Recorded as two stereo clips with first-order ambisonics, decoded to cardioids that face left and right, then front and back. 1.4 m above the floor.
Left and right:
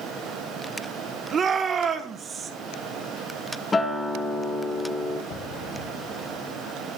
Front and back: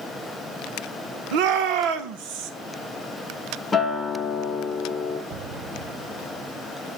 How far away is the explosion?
About 1.8 m.